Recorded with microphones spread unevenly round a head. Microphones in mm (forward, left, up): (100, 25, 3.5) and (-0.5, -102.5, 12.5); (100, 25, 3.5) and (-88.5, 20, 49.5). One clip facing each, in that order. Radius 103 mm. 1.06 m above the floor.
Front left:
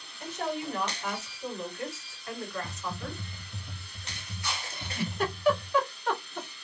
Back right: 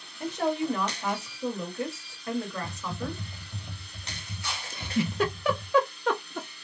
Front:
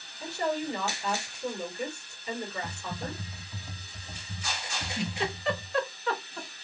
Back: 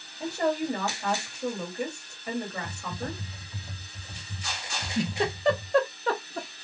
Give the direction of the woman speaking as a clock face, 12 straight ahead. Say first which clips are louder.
Back right 6 dB, back 4 dB; 4 o'clock.